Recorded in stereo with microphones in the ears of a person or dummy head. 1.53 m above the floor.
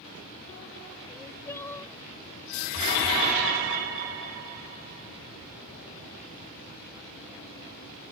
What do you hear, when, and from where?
1.1 s crying: 15° left (ahead or behind)